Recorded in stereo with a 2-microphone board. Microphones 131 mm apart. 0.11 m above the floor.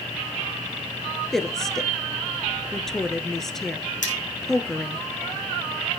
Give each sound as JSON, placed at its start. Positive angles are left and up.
{"t": 1.3, "sound": "a woman speaking", "side_deg": 5, "distance_m": 1.4}
{"t": 4.0, "sound": "cutlery clinking", "side_deg": 75, "distance_m": 4.5}